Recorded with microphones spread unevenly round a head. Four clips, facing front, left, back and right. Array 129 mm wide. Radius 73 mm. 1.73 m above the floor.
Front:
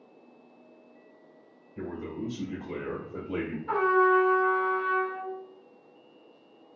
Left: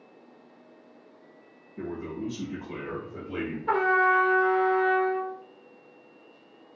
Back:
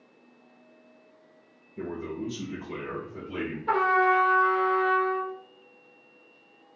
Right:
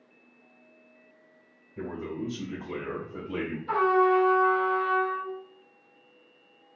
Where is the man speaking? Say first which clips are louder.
Even, back 2 dB; 40° right, 2.0 m; by 3.6 s 10° left, 1.2 m.